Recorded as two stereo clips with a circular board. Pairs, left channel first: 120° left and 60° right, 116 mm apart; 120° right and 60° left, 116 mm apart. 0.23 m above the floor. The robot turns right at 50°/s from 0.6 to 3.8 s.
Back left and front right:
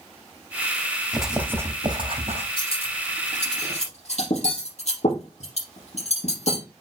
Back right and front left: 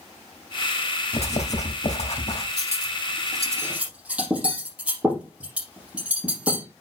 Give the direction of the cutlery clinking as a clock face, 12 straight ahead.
9 o'clock.